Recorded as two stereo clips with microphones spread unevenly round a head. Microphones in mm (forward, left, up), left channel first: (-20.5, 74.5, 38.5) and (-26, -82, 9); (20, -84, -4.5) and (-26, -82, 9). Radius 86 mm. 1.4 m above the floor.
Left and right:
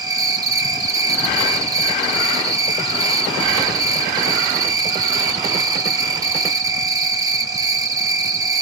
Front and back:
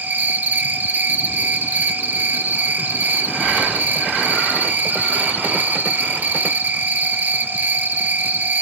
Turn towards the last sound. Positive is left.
turn(degrees=-135)